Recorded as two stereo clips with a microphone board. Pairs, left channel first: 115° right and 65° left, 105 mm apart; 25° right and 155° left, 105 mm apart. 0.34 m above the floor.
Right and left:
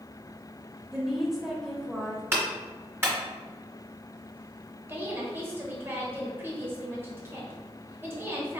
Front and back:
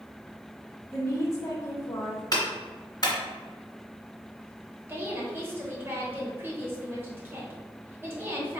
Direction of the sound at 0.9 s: 15° right.